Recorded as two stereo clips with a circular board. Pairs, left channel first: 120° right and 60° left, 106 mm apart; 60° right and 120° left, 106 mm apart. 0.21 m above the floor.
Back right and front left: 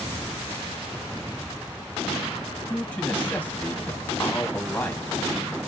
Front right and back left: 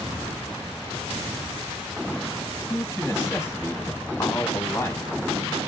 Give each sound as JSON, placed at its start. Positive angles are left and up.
{"t": 2.7, "sound": "a man speaking", "azimuth_deg": -65, "distance_m": 1.3}